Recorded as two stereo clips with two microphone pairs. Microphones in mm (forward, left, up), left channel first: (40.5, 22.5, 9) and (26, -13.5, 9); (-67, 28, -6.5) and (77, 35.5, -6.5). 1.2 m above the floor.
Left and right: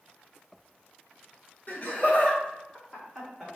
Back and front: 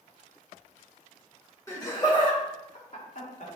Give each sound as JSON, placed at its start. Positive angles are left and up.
{"t": 1.7, "sound": "laughter", "azimuth_deg": 115, "distance_m": 1.6}